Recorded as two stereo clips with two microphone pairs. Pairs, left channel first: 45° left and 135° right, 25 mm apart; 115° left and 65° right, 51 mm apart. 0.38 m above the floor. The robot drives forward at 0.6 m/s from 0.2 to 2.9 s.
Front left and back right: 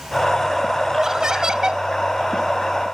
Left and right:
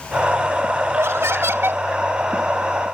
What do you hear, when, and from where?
0.9 s laughter: 75° right; by 1.8 s 90° right